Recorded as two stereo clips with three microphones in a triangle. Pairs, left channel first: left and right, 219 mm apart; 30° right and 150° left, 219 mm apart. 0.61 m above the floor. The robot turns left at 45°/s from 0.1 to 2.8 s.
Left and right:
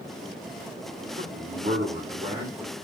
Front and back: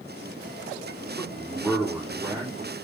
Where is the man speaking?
95° right, 1.6 m; by 2.7 s 165° right, 1.6 m.